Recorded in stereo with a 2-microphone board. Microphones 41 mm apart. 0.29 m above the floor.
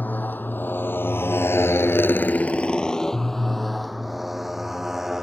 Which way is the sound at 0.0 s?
45° left (ahead or behind).